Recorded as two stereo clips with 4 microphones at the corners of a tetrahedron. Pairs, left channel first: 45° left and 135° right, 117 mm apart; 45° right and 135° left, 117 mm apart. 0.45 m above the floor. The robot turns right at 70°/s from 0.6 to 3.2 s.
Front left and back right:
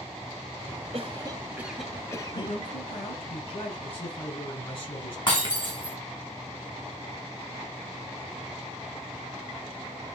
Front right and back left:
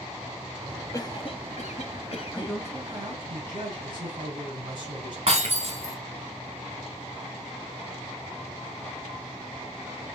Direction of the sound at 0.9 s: 105° right.